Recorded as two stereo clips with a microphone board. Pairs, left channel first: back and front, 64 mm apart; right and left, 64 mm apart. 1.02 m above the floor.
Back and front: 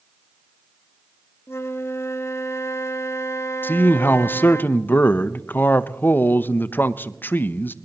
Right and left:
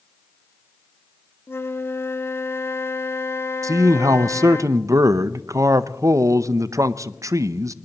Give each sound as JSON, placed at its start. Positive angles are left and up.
{"t": 1.5, "sound": "a flute", "azimuth_deg": -135, "distance_m": 0.8}
{"t": 3.6, "sound": "a man speaking", "azimuth_deg": 120, "distance_m": 0.5}